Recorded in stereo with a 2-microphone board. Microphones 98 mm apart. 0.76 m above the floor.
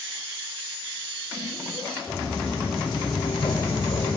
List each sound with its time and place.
2.1 s footsteps: 30° left (ahead or behind), 2.5 m; by 4.2 s 70° left (ahead or behind), 2 m